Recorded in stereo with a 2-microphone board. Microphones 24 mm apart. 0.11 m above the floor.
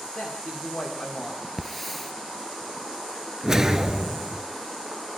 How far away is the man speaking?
About 8.5 m.